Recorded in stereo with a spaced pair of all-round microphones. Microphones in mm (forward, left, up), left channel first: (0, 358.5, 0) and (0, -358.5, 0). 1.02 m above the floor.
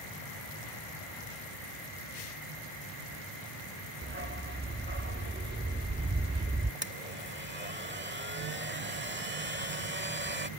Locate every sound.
4.0 s a dog barking: 15° right (ahead or behind)
6.8 s a blender: 15° right (ahead or behind)